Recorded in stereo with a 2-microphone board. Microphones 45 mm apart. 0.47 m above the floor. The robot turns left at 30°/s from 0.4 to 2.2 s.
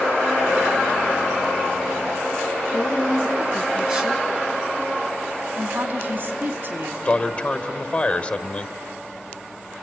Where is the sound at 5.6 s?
45° right (ahead or behind), 3.5 m.